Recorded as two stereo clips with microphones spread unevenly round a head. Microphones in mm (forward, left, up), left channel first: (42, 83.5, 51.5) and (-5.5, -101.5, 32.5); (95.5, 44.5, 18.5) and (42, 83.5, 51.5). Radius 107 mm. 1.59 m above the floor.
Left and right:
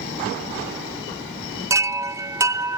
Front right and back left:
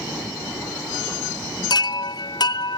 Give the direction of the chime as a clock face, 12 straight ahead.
1 o'clock.